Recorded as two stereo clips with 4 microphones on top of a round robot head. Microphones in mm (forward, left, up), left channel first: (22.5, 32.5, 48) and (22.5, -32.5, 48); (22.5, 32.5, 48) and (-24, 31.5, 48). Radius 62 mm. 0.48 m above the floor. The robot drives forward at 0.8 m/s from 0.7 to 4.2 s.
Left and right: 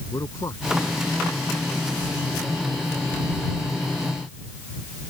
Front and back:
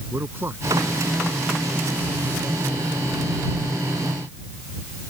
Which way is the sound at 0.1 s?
140° left.